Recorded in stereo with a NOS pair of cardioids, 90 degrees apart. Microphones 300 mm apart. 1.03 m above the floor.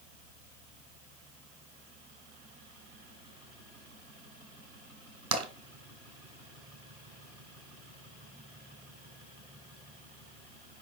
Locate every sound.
5.3 s tapping: 55° right, 3 m